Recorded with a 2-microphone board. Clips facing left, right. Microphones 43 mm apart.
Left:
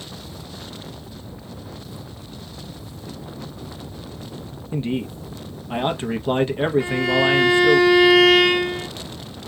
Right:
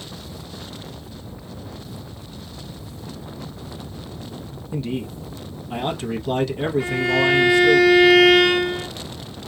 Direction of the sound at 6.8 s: Centre (ahead or behind).